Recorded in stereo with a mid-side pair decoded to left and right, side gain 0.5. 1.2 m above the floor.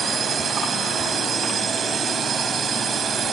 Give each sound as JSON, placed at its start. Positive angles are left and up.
{"t": 0.0, "sound": "a drone", "azimuth_deg": -45}